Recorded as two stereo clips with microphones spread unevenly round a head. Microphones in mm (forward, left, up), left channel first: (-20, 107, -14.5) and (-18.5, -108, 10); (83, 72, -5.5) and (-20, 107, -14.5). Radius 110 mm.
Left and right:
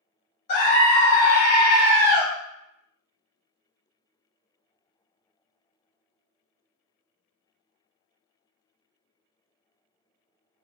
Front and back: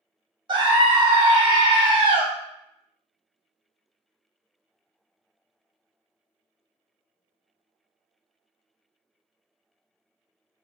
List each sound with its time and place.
0.5 s a scream: 125° left, 0.9 m